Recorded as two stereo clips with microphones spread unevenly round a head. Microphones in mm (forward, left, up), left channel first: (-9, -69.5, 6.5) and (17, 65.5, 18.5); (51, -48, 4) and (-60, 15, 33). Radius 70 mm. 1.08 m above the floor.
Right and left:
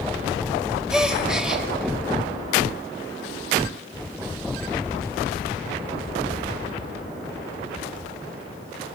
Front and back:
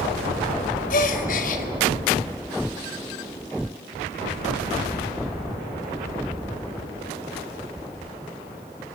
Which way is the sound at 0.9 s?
5° right.